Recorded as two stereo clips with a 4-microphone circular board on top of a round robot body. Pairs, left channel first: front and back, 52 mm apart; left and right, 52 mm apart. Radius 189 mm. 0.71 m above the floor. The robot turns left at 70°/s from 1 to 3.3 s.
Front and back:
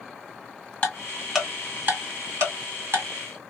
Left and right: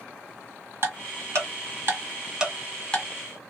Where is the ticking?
65° right, 1.7 m; by 3.0 s 150° left, 1.7 m.